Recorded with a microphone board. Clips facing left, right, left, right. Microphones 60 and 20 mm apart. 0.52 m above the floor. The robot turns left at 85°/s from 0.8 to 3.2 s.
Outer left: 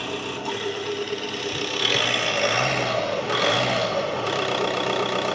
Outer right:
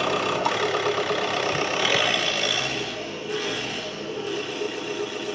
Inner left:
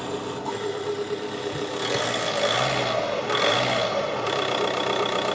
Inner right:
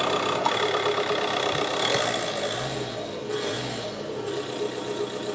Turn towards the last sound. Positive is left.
turn(degrees=85)